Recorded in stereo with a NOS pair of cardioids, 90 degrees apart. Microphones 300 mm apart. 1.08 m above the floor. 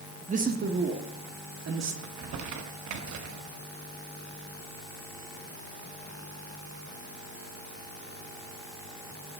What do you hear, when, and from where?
0.3 s a man speaking: 25° right, 1.3 m; by 1.9 s 60° right, 2.0 m
2.0 s crumpling: 70° right, 1.1 m